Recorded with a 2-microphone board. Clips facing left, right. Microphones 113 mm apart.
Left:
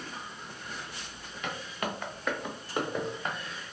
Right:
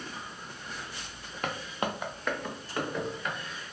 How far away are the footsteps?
About 0.7 m.